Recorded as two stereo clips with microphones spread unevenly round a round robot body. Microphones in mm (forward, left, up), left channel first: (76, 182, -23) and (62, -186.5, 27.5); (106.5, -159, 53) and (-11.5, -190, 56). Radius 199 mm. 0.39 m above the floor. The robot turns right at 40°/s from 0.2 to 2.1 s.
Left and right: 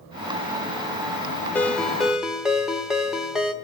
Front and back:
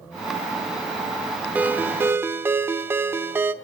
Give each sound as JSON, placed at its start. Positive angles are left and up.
{"t": 1.6, "sound": "a ringtone", "azimuth_deg": 135, "distance_m": 0.8}